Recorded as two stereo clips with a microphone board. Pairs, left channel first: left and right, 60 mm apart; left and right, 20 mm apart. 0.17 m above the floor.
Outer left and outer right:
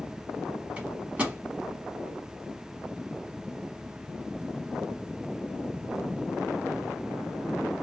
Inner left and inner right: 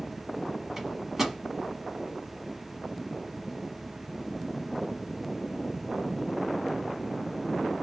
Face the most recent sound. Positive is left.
turn(degrees=-20)  # may be behind; listen again after turning